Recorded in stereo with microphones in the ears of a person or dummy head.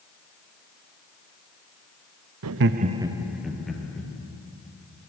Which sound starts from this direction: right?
Laughter, at 2.4 s.